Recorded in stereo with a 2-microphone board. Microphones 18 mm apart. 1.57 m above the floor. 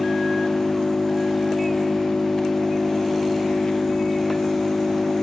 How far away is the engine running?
About 1.1 m.